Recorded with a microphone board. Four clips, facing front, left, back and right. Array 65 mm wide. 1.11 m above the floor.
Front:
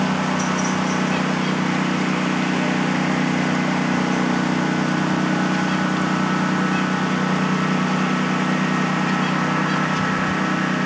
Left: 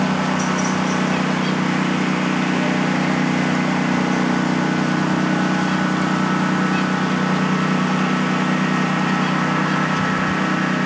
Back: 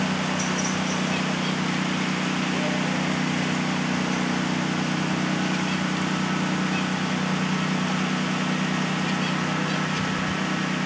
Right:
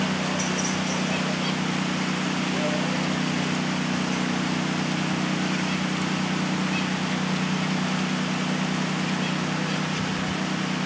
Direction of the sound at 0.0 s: 50° left.